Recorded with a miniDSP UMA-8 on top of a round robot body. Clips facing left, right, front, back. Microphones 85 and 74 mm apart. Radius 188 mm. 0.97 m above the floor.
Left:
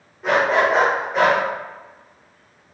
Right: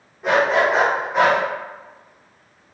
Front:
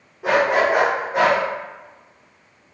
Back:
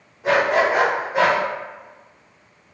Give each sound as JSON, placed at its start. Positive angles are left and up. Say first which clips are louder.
{"t": 0.2, "sound": "a dog barking", "louder": "even, even", "azimuth_deg": 0, "distance_m": 0.9}